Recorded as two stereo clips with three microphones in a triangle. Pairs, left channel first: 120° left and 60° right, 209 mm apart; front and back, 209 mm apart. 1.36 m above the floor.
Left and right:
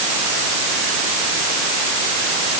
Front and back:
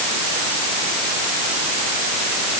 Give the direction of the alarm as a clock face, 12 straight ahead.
No alarm in this recording.